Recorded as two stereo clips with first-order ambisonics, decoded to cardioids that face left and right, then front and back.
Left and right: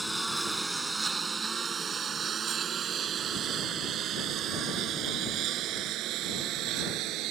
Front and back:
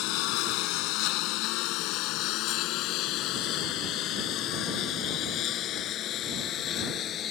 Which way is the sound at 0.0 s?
5° right.